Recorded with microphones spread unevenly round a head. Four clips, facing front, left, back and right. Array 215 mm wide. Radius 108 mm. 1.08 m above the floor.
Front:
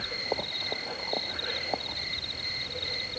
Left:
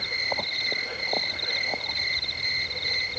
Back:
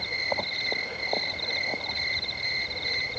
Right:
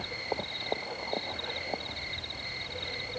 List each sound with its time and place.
0.0 s an insect: 140° left